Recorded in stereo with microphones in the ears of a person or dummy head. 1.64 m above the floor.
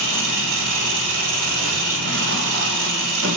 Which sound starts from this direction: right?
An engine running, at 0.0 s.